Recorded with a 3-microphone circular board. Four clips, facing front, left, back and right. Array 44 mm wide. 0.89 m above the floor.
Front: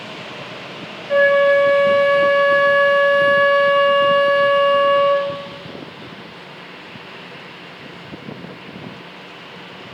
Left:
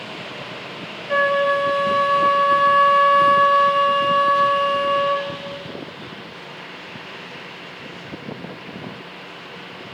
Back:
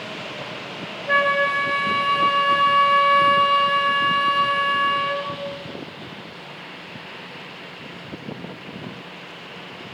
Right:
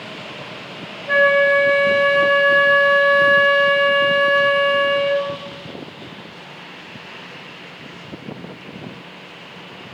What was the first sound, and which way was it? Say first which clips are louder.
A flute: right 4 dB, front 6 dB; 145° right.